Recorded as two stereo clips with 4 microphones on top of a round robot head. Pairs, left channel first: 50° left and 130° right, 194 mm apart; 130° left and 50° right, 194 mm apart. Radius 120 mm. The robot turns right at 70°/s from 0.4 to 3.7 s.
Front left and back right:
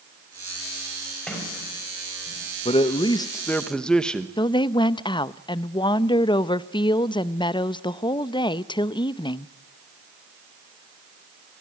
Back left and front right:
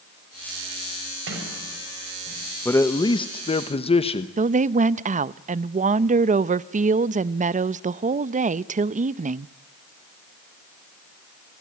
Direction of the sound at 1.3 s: 35° right.